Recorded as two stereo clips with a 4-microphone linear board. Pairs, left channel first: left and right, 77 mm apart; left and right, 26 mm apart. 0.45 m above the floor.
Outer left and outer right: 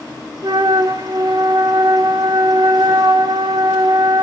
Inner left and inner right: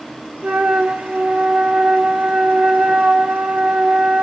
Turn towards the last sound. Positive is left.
turn(degrees=-65)  # may be behind; listen again after turning